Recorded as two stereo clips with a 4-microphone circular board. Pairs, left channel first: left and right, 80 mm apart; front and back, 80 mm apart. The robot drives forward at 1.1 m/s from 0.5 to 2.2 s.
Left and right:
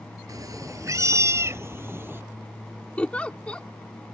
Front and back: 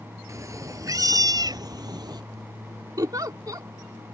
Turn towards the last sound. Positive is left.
turn(degrees=160)